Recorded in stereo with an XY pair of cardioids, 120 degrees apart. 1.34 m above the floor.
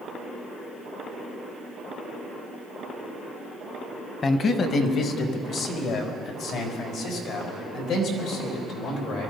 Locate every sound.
4.2 s a man speaking: 40° left, 1.3 m; by 9.3 s 80° left, 5.5 m